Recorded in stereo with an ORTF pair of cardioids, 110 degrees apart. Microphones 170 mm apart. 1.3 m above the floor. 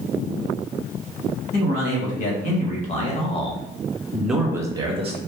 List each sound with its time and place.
1.5 s a man speaking: 55° left, 1.6 m; by 5.2 s 40° right, 0.8 m